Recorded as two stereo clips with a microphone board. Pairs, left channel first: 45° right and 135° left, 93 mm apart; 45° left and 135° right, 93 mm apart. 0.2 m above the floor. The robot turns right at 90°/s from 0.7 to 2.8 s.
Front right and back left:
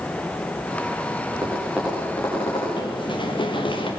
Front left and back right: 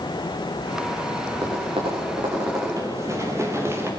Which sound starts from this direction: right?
Running footsteps, at 2.8 s.